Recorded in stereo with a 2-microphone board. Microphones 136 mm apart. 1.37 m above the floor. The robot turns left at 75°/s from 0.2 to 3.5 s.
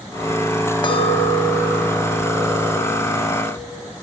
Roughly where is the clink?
Behind left.